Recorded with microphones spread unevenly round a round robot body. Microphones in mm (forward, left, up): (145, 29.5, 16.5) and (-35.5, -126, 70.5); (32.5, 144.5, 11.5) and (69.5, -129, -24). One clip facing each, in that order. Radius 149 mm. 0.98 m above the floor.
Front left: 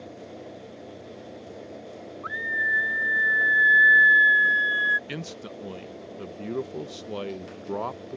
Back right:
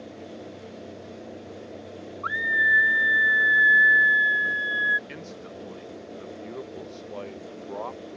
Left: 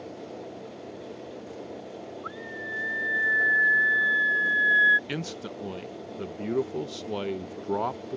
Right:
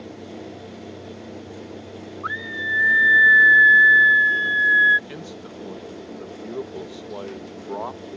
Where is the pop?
I don't hear a pop.